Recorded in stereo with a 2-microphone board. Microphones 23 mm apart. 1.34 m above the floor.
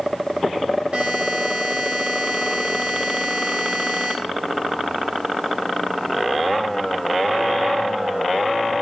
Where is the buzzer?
40° right (ahead or behind), 3.5 m.